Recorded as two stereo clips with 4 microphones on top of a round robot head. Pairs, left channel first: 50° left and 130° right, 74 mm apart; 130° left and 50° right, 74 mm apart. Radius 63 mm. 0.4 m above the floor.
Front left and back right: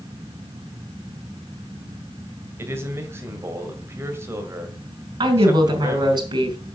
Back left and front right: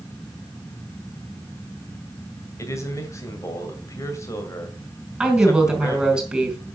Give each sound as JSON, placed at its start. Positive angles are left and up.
{"t": 2.6, "sound": "a man speaking", "azimuth_deg": 175, "distance_m": 2.0}
{"t": 5.2, "sound": "a woman speaking", "azimuth_deg": -130, "distance_m": 3.0}